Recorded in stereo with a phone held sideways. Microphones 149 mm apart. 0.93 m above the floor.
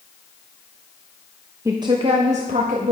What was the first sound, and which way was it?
A woman speaking, 20° right (ahead or behind).